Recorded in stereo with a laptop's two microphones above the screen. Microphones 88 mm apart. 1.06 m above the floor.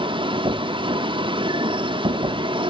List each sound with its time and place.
0.0 s a machine running: 70° right (ahead or behind), 0.7 m